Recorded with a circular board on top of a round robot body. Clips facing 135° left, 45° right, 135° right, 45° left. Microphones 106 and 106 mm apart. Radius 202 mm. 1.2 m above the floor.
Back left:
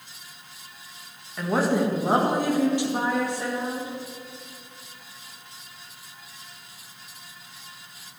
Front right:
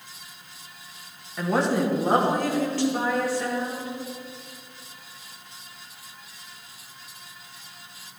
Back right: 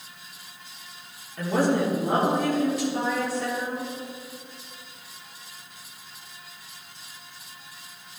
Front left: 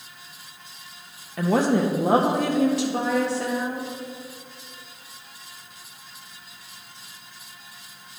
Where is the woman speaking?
45° left, 1.3 m; by 3.9 s 65° left, 3 m.